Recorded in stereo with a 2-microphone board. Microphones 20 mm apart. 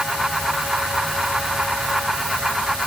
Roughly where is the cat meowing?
No cat meowing in this recording.